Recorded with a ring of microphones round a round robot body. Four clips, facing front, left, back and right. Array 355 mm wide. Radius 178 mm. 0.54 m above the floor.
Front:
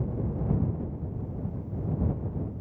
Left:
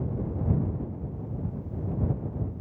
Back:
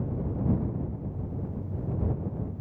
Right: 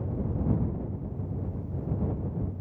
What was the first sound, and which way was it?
Only background noise.